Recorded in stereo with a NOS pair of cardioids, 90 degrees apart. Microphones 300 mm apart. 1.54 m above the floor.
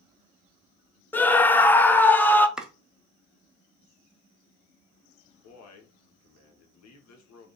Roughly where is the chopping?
Ahead.